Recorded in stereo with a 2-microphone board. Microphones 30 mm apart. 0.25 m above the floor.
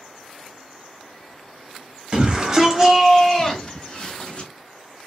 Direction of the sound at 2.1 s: 35° right (ahead or behind).